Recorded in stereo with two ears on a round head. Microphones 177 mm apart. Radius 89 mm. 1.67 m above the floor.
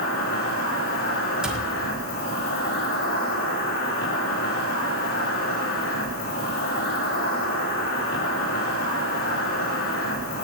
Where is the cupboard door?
5° right (ahead or behind), 2.0 m.